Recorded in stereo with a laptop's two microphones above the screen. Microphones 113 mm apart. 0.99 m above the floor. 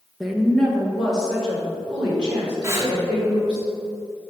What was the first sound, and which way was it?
A woman speaking, centre (ahead or behind).